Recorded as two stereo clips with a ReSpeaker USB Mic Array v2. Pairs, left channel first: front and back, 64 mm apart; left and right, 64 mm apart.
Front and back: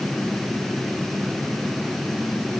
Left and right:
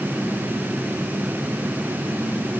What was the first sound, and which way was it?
Only background noise.